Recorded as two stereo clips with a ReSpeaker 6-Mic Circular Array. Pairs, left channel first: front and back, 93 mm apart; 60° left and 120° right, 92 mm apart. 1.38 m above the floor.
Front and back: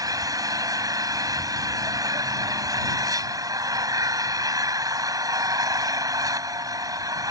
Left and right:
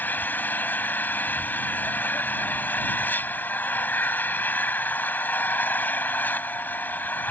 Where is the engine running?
130° left.